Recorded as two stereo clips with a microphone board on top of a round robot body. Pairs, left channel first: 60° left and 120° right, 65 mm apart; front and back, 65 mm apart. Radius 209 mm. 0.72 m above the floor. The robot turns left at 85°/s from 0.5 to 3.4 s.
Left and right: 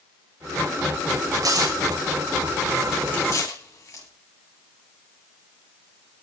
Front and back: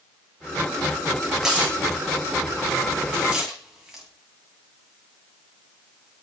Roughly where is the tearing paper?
Right.